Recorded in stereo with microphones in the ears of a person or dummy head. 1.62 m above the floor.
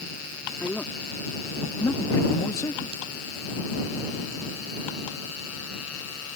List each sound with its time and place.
0.6 s a man speaking: 10° left (ahead or behind); by 2.9 s 20° left (ahead or behind)